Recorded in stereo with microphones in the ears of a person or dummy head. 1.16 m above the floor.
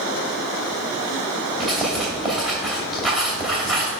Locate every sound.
1.6 s writing: 5° right (ahead or behind), 2.5 m